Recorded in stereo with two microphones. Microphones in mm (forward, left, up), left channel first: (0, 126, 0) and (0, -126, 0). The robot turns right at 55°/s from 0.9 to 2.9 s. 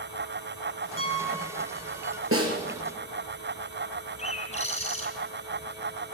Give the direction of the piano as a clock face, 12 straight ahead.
2 o'clock.